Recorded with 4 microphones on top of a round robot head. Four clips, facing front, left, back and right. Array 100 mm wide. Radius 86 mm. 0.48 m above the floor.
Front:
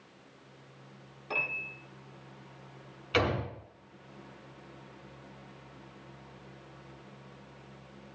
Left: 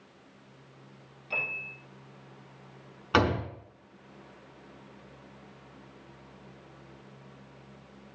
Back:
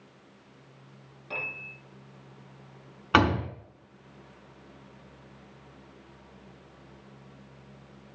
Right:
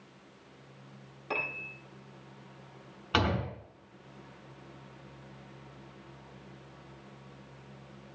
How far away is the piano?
About 8.5 m.